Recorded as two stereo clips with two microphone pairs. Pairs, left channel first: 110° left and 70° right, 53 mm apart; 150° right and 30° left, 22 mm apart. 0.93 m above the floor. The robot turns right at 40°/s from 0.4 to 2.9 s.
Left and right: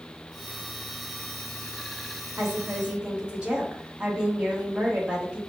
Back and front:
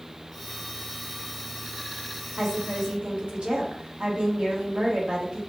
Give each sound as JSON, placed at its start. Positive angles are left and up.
{"t": 2.4, "sound": "a woman speaking", "azimuth_deg": -20, "distance_m": 1.1}